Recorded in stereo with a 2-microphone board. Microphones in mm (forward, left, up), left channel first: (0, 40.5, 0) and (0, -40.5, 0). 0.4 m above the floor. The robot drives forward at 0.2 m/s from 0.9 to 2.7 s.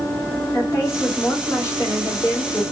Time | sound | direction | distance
0.5 | a woman speaking | 40° left (ahead or behind) | 1.6 m